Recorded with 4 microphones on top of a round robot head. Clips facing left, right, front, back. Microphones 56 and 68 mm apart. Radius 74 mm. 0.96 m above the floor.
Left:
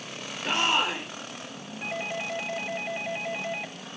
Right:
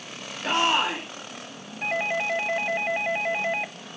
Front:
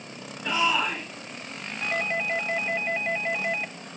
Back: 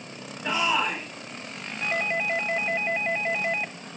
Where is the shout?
100° right, 3 m.